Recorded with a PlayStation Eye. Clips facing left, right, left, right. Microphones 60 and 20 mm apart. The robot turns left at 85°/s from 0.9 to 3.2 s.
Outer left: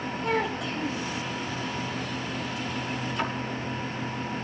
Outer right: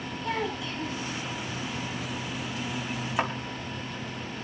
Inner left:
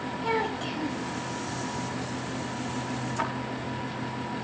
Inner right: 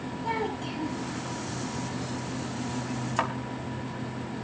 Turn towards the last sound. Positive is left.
turn(degrees=-55)  # may be behind; listen again after turning